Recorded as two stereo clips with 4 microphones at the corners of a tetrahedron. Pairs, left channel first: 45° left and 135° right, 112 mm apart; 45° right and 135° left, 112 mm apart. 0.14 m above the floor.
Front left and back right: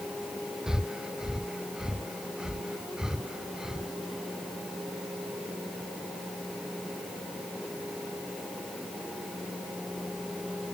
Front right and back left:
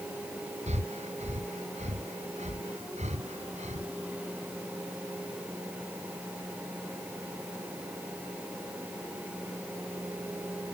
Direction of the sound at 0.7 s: 140° left.